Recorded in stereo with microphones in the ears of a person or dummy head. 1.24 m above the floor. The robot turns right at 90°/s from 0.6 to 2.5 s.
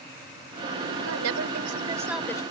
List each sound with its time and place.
1.0 s a woman speaking: 110° right; by 2.4 s 20° left